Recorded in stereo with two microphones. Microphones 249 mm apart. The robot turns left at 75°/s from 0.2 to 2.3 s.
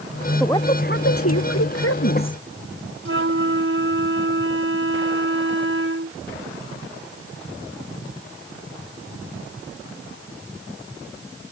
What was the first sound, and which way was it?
A woman speaking, 175° left.